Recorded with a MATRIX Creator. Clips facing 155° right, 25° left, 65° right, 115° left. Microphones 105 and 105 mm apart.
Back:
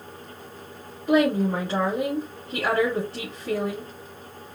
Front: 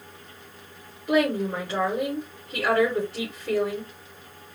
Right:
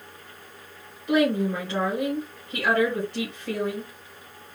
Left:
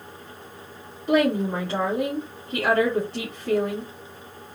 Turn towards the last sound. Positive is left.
turn(degrees=155)